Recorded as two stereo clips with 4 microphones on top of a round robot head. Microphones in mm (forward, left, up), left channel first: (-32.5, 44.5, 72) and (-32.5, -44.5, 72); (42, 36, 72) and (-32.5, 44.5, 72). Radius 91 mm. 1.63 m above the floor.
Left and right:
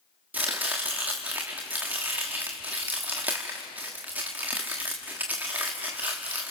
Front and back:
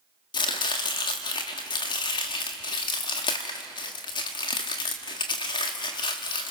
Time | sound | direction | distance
0.3 | chopping | 15° right | 1.3 m